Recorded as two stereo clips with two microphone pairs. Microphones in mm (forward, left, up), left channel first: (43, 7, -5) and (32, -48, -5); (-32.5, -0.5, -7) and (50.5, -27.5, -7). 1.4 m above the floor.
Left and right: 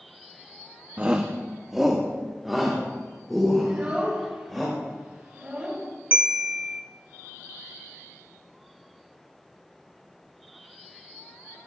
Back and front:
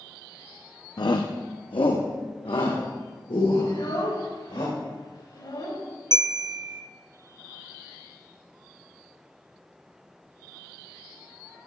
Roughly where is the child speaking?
Behind.